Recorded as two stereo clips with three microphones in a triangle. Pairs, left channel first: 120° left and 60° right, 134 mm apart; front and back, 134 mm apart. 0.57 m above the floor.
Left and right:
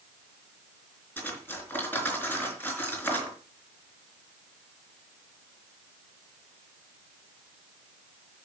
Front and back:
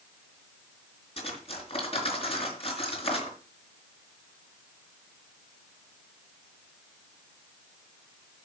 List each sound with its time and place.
1.2 s cutlery clinking: 45° left, 4 m